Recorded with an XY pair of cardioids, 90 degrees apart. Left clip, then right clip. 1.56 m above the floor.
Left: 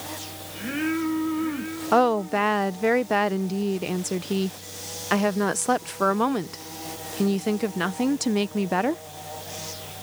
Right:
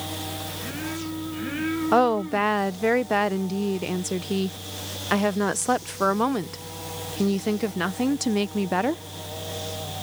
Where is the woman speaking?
Straight ahead.